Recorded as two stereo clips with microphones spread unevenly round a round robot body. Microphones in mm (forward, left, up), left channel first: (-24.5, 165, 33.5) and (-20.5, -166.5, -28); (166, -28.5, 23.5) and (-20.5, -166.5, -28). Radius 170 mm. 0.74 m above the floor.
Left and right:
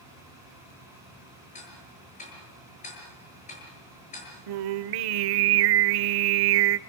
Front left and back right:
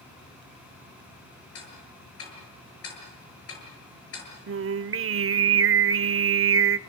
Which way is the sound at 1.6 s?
20° left.